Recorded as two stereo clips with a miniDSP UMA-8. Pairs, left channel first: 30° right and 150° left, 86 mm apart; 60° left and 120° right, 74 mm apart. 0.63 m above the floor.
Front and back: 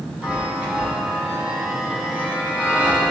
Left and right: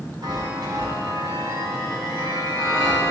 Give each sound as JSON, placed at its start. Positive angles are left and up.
{"t": 0.2, "sound": "a chime", "azimuth_deg": -135, "distance_m": 4.0}